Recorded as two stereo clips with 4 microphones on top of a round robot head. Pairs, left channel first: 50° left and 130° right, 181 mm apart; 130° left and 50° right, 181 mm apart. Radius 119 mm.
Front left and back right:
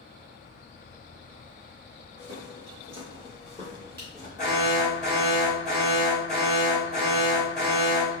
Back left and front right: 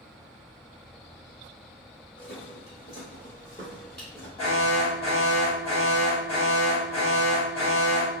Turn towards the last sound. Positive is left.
turn(degrees=75)